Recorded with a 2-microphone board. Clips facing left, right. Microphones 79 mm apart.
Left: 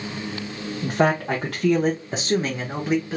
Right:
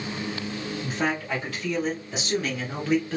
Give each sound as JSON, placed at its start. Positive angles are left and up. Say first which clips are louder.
{"t": 0.8, "sound": "a man speaking", "louder": "left 8 dB", "side_deg": 70, "distance_m": 1.1}